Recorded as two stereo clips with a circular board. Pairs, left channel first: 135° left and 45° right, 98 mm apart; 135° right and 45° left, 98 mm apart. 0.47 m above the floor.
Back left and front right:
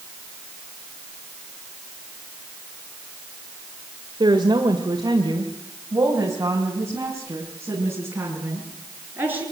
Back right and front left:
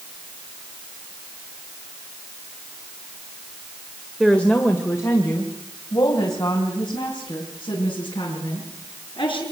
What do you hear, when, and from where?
4.2 s a woman speaking: 50° right, 1.9 m; by 9.4 s 115° right, 7.5 m